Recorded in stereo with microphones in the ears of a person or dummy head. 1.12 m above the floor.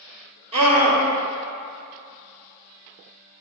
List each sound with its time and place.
0.5 s a scream: 30° right (ahead or behind), 1.8 m